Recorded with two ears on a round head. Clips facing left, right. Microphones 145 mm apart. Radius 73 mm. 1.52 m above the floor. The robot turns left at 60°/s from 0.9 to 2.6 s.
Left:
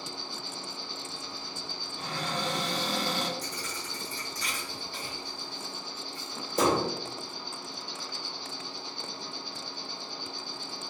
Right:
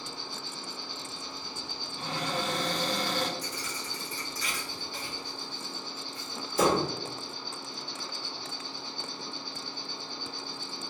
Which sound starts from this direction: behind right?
A cupboard door, at 2.0 s.